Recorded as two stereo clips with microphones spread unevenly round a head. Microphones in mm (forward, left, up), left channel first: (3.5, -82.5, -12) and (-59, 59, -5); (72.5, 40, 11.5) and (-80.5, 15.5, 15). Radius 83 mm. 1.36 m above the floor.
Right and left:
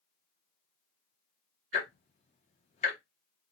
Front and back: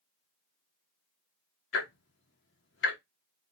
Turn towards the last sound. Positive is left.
turn(degrees=-15)